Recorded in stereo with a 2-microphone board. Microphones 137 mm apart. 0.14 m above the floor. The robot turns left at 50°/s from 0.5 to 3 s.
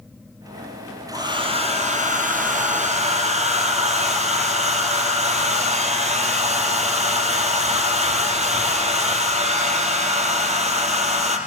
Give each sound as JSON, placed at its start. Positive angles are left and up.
{"t": 1.1, "sound": "a hair dryer", "azimuth_deg": -25, "distance_m": 3.0}